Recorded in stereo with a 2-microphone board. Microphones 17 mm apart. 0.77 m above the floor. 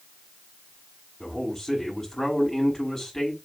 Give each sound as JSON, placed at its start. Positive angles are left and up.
{"t": 1.2, "sound": "a man speaking", "side_deg": 15, "distance_m": 5.0}